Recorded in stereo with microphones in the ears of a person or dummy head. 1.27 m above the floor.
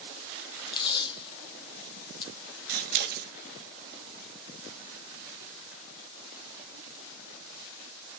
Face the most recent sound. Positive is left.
turn(degrees=-55)  # may be behind; listen again after turning